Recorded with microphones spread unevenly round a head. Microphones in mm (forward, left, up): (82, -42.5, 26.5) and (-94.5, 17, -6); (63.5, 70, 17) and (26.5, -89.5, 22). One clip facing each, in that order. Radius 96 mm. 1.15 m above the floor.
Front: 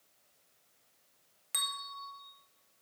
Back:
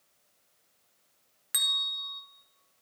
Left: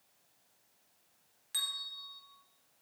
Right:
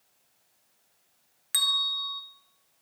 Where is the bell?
130° right, 0.5 m.